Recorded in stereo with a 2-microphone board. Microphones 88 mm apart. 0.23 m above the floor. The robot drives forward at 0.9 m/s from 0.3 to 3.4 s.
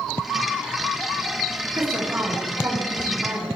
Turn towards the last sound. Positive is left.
turn(degrees=-25)  # may be behind; listen again after turning